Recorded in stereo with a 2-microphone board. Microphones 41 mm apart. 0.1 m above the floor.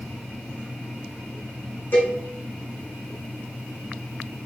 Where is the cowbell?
55° left (ahead or behind), 1.5 m.